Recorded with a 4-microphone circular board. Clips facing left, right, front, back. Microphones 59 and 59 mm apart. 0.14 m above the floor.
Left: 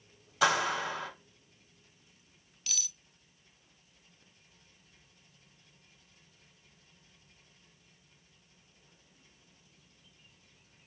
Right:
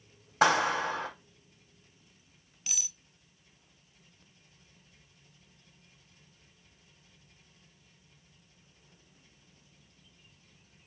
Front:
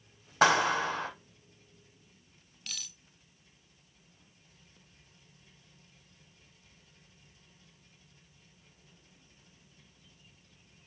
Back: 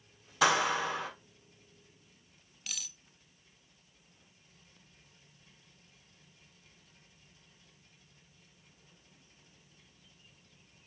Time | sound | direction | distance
0.4 | a clap | 45° right | 4.5 m
2.7 | cutlery clinking | 105° right | 0.6 m